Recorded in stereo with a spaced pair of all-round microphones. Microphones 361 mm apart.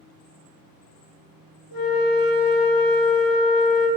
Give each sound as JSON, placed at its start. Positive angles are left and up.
{"t": 1.7, "sound": "a flute", "side_deg": 70, "distance_m": 0.7}